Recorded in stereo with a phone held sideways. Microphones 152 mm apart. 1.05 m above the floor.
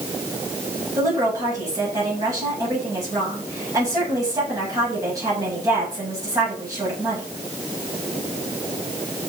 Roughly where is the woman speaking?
Right.